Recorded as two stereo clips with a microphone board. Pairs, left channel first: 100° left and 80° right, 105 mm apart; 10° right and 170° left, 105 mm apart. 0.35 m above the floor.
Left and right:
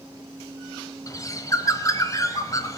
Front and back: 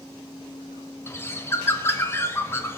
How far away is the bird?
About 1.1 m.